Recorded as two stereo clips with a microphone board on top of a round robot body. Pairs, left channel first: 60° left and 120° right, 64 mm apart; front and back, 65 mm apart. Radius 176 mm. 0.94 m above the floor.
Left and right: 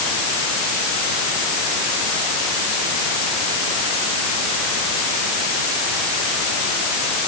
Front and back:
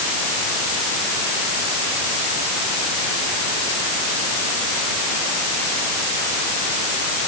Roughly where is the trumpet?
No trumpet in this recording.